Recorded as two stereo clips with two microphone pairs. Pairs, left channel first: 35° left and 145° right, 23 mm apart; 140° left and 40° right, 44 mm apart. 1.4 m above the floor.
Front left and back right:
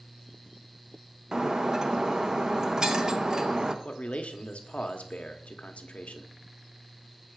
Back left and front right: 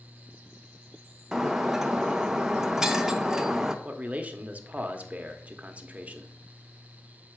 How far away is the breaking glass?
About 0.6 m.